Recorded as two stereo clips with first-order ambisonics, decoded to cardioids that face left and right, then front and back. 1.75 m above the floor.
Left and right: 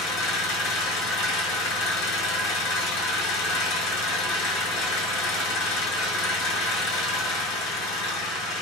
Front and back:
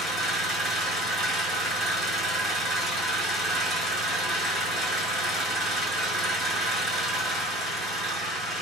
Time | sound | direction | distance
0.0 | an engine running | 85° left | 3 m